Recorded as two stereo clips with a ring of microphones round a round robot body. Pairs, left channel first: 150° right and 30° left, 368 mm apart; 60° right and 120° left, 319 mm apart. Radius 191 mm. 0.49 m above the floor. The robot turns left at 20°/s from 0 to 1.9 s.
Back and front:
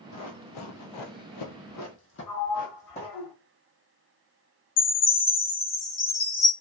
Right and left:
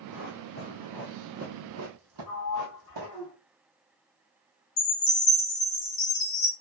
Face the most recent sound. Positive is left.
turn(degrees=-90)